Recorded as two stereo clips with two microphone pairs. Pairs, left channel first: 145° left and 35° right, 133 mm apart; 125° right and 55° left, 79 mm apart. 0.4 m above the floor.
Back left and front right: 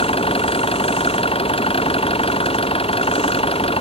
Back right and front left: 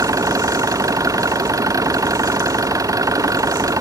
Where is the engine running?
100° left.